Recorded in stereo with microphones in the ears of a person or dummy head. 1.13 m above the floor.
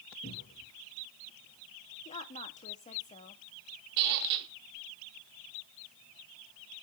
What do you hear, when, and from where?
0.2 s a cupboard door: 45° left (ahead or behind), 5 m
2.0 s a woman speaking: 35° left (ahead or behind), 1.6 m
4.0 s a squeak: 50° right (ahead or behind), 1.0 m